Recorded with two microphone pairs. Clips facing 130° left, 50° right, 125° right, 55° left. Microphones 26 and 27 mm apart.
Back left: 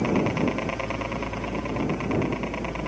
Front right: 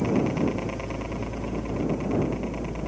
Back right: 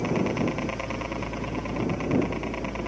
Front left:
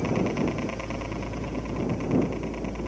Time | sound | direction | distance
0.0 | a helicopter | 155° left | ?